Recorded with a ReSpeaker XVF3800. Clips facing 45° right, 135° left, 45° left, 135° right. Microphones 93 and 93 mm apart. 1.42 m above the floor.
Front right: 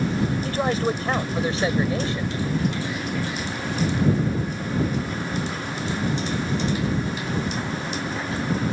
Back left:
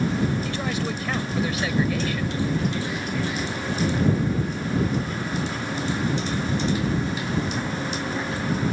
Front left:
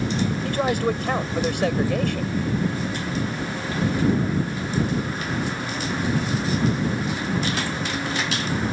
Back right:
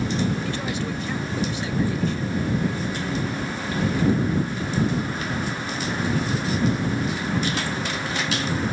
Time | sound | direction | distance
0.5 | a man speaking | 5° left | ?